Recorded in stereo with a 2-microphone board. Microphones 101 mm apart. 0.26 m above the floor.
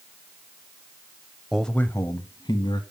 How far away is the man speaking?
About 0.9 m.